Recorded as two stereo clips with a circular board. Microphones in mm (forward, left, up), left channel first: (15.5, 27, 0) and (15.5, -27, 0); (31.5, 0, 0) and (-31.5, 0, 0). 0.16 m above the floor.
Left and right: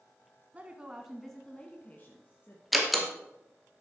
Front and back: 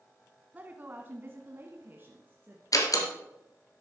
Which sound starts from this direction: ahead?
A door slam, at 2.7 s.